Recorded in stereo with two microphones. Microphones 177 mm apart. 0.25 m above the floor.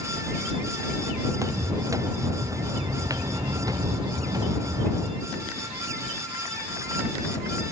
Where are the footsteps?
15° right (ahead or behind); by 5.2 s 20° right (ahead or behind).